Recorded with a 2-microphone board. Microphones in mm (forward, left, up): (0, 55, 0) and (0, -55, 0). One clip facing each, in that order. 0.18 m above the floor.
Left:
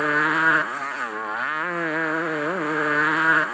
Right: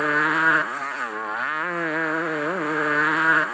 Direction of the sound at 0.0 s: Centre (ahead or behind).